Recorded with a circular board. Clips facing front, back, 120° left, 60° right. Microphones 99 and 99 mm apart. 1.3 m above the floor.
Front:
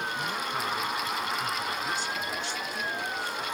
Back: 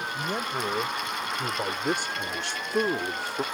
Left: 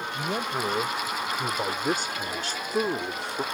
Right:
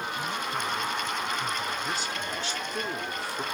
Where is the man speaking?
135° left; by 3.5 s 175° right.